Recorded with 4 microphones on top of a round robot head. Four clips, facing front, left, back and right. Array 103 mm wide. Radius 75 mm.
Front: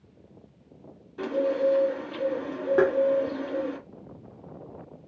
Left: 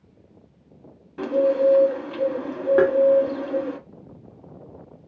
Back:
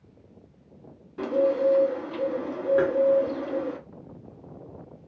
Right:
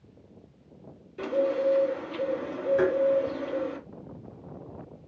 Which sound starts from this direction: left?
A bird, at 1.2 s.